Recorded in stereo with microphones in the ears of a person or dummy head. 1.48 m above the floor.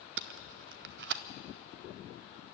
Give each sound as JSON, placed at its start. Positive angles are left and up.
{"t": 0.2, "sound": "tape being pulled", "side_deg": -65, "distance_m": 0.6}